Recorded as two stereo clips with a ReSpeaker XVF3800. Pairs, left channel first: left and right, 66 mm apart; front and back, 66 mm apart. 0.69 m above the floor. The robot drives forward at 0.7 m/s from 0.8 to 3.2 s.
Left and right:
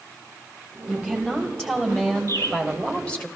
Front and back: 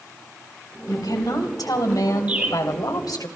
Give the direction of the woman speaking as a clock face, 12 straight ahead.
12 o'clock.